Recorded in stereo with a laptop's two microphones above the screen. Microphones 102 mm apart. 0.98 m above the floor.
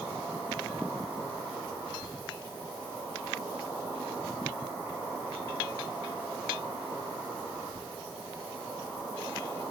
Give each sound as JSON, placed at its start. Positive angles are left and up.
{"t": 0.0, "sound": "an insect", "side_deg": -20, "distance_m": 0.9}